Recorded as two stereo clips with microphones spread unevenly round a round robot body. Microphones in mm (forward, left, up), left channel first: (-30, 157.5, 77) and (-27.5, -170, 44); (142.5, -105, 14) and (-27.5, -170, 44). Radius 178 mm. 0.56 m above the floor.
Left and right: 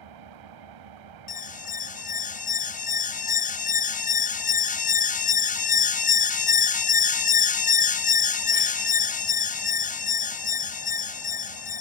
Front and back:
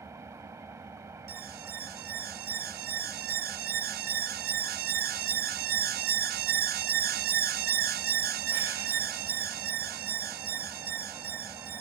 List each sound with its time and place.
0.0 s an engine running: 85° right
1.3 s an alarm: 160° left